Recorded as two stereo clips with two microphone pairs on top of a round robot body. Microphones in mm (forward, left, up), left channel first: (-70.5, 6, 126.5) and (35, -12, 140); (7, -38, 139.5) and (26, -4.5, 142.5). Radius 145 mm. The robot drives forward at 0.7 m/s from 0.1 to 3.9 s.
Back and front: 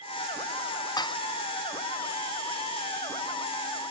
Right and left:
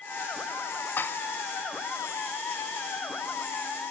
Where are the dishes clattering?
140° right, 0.5 m; by 1.2 s 150° right, 0.7 m.